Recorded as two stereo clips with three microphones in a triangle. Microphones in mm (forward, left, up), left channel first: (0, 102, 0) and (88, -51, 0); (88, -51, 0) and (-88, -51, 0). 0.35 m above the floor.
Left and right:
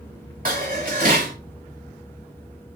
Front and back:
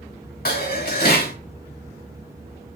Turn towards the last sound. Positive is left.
turn(degrees=-25)